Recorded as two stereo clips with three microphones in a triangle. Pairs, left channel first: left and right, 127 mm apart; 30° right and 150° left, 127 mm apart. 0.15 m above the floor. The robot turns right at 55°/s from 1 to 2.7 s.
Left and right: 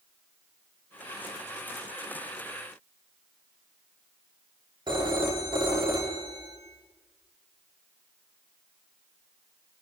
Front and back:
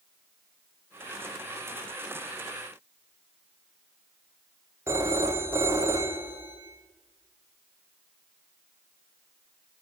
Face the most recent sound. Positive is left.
turn(degrees=-140)